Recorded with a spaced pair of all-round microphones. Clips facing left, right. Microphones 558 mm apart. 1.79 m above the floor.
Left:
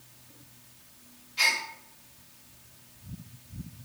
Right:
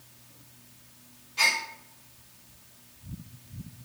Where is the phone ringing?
I don't hear a phone ringing.